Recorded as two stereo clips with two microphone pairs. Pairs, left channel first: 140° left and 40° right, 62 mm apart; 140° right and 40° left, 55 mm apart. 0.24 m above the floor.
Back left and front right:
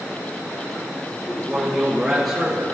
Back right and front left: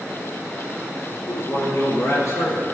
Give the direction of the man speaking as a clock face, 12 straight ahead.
4 o'clock.